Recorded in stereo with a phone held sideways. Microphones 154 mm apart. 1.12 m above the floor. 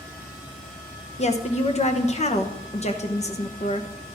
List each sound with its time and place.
1.2 s a woman speaking: 45° left (ahead or behind), 0.9 m